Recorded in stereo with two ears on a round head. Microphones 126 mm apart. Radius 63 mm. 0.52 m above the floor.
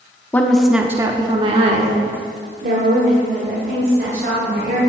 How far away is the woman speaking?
About 0.8 m.